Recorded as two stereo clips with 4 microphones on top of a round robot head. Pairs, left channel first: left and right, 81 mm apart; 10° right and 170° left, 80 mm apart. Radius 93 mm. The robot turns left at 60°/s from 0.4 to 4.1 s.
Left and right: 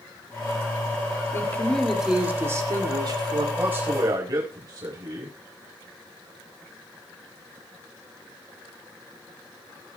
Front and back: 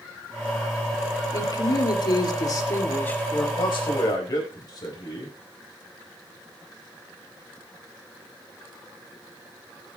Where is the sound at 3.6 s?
15° right, 4.5 m; by 5.3 s 45° right, 4.5 m.